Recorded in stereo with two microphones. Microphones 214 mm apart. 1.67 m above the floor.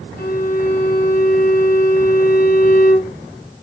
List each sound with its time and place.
0.2 s a violin: 45° left (ahead or behind), 1.2 m